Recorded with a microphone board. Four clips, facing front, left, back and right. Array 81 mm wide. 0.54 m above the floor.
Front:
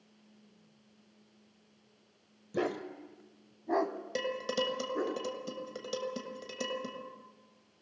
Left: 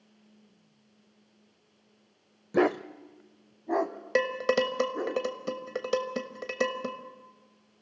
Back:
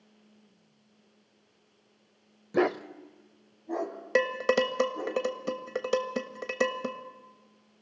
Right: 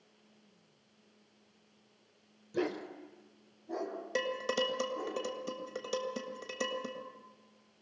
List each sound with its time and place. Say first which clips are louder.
2.5 s a dog barking: left 10 dB, back 7 dB; 130° left, 0.5 m; by 5.2 s 50° left, 2.5 m
4.2 s dishes clattering: left 8 dB, back 9 dB; 145° left, 1.4 m